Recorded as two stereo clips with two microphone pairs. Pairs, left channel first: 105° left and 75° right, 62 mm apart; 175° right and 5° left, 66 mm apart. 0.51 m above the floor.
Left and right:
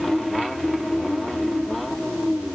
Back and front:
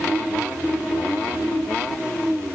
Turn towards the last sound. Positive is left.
No sound to turn to.